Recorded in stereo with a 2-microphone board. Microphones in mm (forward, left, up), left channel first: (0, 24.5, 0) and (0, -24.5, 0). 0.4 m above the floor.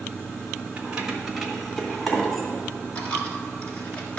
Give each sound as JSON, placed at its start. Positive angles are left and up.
{"t": 0.8, "sound": "keys jangling", "side_deg": -25, "distance_m": 1.1}
{"t": 3.0, "sound": "a dropped coin", "side_deg": 25, "distance_m": 1.6}